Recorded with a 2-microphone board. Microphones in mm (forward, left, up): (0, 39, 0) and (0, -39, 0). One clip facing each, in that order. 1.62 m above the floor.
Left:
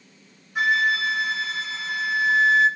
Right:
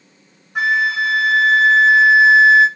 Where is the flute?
65° right (ahead or behind), 1.7 m.